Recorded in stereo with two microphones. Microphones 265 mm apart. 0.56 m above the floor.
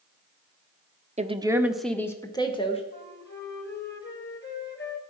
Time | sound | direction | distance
1.2 | a woman speaking | 25° right (ahead or behind) | 0.9 m
2.9 | a flute | 40° left (ahead or behind) | 1.9 m